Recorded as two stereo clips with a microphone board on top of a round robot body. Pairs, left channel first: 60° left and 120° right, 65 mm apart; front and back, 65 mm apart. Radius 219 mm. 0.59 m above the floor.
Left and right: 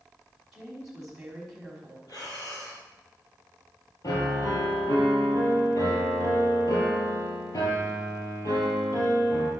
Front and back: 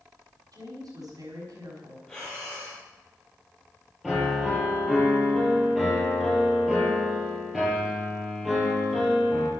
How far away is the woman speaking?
About 5 m.